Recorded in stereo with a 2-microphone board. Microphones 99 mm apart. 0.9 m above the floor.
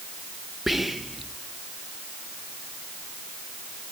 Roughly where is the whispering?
Centre.